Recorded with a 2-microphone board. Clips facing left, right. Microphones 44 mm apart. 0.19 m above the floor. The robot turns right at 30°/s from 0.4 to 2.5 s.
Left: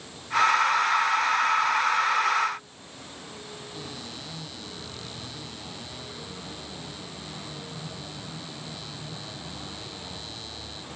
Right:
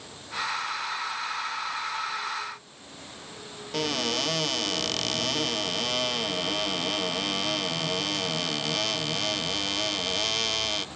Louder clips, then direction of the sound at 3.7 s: Right 16 dB; 60° right (ahead or behind).